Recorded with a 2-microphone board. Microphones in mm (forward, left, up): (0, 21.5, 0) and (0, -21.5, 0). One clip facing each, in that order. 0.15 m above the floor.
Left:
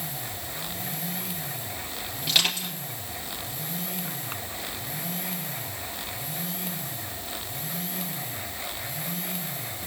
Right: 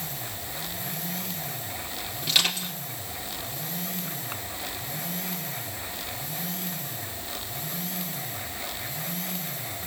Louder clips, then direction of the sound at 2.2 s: Even; centre (ahead or behind).